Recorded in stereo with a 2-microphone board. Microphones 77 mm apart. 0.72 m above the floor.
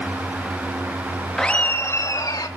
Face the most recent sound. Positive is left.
turn(degrees=60)  # may be behind; listen again after turning